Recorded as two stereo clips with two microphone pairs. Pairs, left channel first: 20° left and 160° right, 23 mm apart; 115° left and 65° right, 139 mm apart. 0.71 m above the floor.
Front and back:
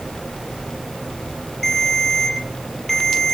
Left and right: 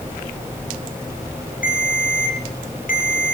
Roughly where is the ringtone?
Left.